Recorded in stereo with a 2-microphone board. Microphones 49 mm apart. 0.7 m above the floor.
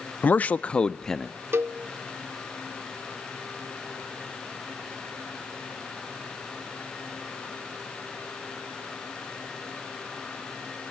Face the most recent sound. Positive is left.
turn(degrees=-55)  # may be behind; listen again after turning